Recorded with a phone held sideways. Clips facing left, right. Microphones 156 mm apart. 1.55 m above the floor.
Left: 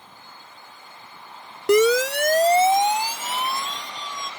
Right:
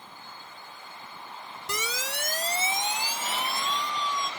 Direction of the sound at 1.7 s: 75° left (ahead or behind).